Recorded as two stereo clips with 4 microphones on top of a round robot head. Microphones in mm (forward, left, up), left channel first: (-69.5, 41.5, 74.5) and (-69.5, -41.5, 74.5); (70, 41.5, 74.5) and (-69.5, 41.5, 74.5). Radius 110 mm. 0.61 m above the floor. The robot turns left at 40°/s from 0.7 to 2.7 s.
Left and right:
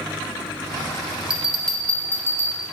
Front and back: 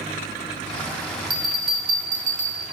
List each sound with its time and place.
1.3 s a bell: 170° right, 1.6 m; by 2.6 s 135° left, 1.6 m